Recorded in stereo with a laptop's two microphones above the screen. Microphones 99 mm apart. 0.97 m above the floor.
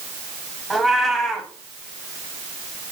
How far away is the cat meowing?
About 0.6 m.